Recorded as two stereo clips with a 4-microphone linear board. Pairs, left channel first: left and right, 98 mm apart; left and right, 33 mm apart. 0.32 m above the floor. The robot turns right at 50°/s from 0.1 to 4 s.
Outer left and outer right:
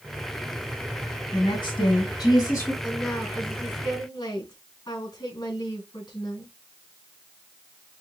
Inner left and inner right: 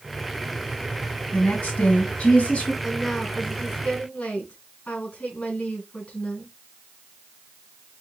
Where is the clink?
No clink in this recording.